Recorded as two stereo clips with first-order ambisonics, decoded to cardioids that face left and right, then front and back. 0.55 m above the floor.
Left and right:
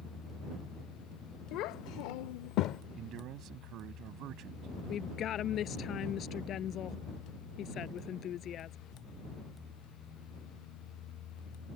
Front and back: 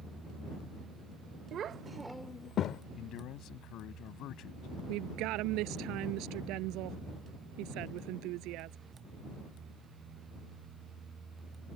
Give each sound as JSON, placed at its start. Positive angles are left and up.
{"t": 1.5, "sound": "a child speaking", "azimuth_deg": 125}
{"t": 2.9, "sound": "a man speaking", "azimuth_deg": -45}
{"t": 4.9, "sound": "a woman speaking", "azimuth_deg": 145}